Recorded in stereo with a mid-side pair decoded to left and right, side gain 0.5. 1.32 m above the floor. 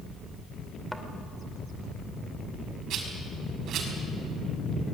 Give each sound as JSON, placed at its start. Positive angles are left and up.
{"t": 0.9, "sound": "a thud", "azimuth_deg": 0, "distance_m": 2.5}
{"t": 2.9, "sound": "a rattle", "azimuth_deg": -65, "distance_m": 6.0}